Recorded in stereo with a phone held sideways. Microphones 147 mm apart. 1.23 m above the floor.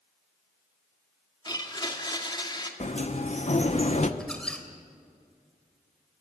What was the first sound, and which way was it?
A blender, 30° left (ahead or behind).